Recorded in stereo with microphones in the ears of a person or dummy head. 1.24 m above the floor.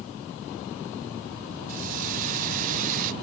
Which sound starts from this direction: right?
A hiss, at 1.7 s.